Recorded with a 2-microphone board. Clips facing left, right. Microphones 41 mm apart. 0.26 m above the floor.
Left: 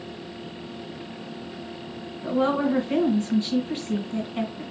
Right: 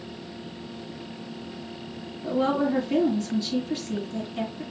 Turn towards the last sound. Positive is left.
turn(degrees=35)  # may be behind; listen again after turning